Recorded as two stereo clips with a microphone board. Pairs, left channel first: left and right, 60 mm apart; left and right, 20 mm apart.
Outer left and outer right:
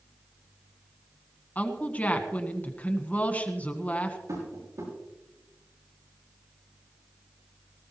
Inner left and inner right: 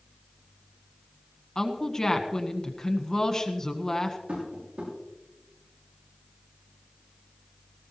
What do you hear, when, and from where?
1.6 s a woman speaking: 25° left (ahead or behind), 1.6 m
4.3 s tapping: 85° right, 7.5 m